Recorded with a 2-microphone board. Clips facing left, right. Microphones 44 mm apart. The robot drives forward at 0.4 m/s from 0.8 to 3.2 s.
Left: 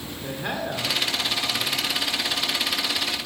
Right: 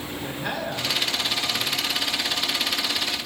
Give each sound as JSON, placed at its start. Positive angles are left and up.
{"t": 0.2, "sound": "a man speaking", "side_deg": 15, "distance_m": 1.8}